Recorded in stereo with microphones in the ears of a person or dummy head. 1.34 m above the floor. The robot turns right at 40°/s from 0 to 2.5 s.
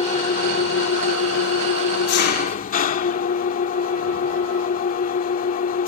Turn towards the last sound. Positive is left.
turn(degrees=135)